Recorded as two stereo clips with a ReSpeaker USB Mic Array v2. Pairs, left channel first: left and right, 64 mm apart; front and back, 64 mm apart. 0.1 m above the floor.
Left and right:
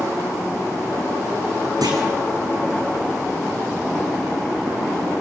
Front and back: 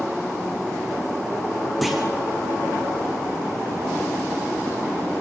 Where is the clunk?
90° right, 4 m.